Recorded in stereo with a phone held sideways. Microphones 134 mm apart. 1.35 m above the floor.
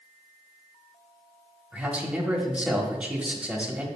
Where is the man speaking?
10° right (ahead or behind), 1.3 m.